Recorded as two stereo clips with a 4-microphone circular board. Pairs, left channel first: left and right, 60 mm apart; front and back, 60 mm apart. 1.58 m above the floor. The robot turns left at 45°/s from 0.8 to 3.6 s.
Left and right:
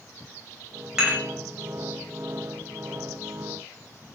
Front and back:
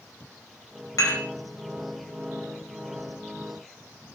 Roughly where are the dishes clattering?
Ahead.